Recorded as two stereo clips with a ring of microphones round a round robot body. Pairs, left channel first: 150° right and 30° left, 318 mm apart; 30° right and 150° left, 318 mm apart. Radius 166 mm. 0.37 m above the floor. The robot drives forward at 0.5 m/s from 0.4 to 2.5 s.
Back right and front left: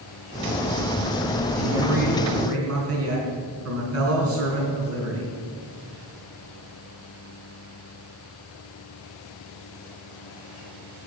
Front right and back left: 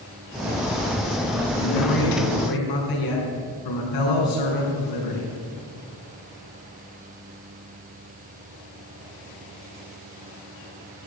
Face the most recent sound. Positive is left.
turn(degrees=-15)